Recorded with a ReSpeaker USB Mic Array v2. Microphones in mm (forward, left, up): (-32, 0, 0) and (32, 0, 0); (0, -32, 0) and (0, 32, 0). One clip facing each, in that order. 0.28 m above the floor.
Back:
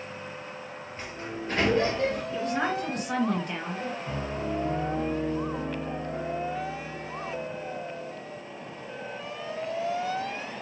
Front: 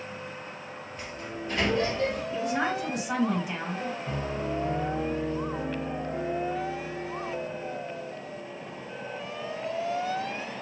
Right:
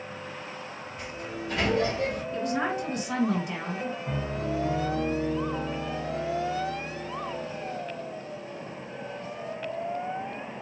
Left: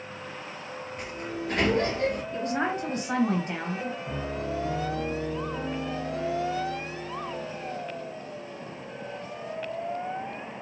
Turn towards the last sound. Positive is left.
turn(degrees=-65)